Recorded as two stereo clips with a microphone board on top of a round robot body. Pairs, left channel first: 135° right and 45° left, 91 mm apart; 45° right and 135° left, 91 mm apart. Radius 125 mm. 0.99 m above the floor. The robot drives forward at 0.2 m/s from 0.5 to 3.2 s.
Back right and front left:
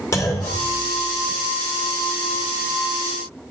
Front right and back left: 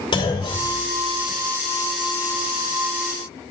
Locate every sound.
0.1 s a clunk: 80° right, 2 m; by 1.4 s 85° right, 2 m